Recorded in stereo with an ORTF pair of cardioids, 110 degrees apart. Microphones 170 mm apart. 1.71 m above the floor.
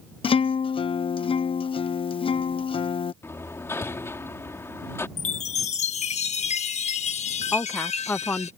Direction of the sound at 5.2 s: 40° left.